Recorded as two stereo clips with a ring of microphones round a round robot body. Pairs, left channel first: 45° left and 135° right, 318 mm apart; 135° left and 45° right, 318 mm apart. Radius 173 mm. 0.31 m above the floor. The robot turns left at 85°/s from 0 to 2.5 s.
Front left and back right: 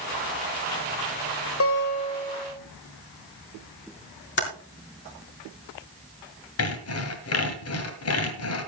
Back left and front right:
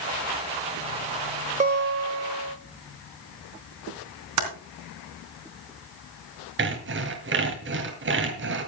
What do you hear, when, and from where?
1.6 s a guitar: 15° left, 1.7 m; by 2.6 s 60° right, 1.7 m
4.4 s typing on a keyboard: 10° right, 3.5 m
6.6 s sawing: 5° left, 2 m